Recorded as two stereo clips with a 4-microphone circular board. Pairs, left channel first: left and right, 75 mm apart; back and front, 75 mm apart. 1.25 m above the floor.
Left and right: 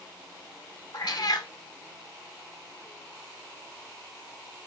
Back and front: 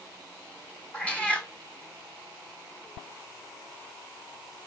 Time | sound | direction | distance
0.9 | a cat meowing | 105° left | 1.7 m